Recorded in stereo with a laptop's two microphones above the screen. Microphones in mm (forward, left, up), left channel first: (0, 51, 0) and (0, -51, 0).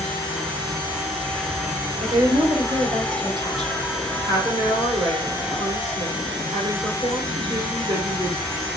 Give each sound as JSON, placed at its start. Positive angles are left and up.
{"t": 0.0, "sound": "an insect", "side_deg": 5, "distance_m": 1.9}
{"t": 2.0, "sound": "a woman speaking", "side_deg": -45, "distance_m": 1.2}
{"t": 4.3, "sound": "a woman speaking", "side_deg": -60, "distance_m": 2.5}